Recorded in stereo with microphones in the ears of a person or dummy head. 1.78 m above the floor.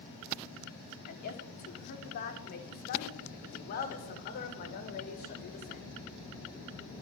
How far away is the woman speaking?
About 5 m.